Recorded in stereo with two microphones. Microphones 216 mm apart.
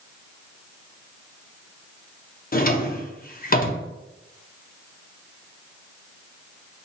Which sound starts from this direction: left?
A drawer, at 2.5 s.